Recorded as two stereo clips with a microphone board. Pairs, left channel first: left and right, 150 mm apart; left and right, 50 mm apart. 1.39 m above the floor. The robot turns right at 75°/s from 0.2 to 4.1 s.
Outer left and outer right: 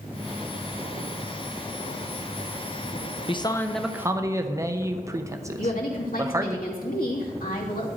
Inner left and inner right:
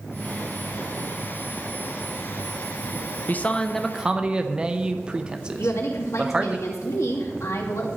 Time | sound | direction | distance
3.3 | a man speaking | 140° left | 0.9 m
5.6 | a woman speaking | 80° left | 2.5 m